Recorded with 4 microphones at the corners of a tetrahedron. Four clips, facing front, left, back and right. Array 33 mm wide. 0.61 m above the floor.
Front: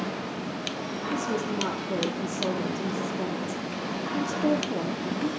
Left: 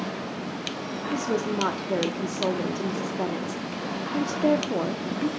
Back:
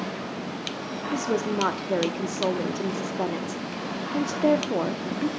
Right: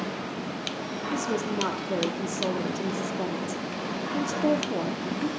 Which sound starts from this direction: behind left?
A woman speaking, at 1.1 s.